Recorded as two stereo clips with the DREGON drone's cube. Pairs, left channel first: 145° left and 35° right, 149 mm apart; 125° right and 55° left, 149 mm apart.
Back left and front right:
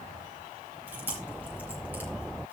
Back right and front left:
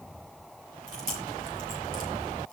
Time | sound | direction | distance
0.9 | chewing | 45° left | 4.5 m